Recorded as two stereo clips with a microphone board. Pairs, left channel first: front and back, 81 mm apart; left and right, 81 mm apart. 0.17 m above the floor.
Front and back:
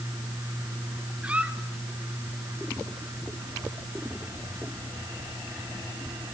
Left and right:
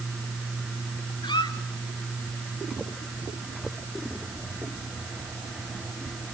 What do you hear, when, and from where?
1.2 s a squeak: 105° left, 1.0 m